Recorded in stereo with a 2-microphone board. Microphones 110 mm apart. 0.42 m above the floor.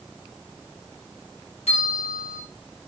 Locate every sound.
1.7 s a bell: 80° left, 6 m